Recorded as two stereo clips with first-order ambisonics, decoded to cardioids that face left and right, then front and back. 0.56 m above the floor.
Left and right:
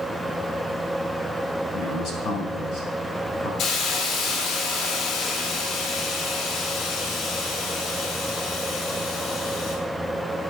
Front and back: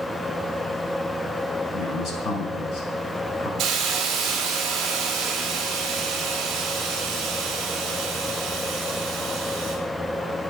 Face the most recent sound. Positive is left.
turn(degrees=125)